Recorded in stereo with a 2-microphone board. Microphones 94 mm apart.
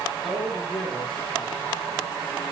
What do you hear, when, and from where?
0.2 s a man speaking: centre (ahead or behind), 5.5 m; by 2.0 s 30° left (ahead or behind), 5.5 m